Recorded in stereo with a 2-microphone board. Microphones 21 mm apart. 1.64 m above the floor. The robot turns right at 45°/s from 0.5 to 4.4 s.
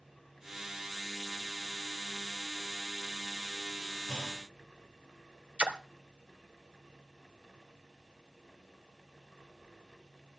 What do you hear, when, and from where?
4.1 s a clunk: 50° left (ahead or behind), 5 m; by 4.4 s 40° left (ahead or behind), 5 m
5.6 s a splash: 60° right (ahead or behind), 0.9 m